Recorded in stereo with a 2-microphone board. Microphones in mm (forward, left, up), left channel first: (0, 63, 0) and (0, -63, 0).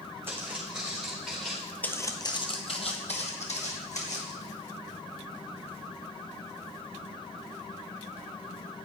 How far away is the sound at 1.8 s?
About 0.6 m.